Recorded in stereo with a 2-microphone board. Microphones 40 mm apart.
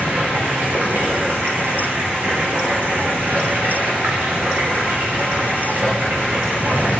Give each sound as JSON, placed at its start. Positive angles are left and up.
{"t": 0.0, "sound": "running water", "side_deg": -60, "distance_m": 5.5}